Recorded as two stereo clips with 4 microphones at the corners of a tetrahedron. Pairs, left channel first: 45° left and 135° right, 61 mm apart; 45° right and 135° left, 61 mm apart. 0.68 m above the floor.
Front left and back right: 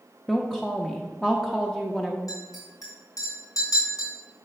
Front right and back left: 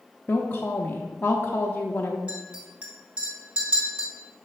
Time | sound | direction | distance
0.3 | a woman speaking | 30° right | 0.6 m
2.3 | a clink | 65° left | 2.5 m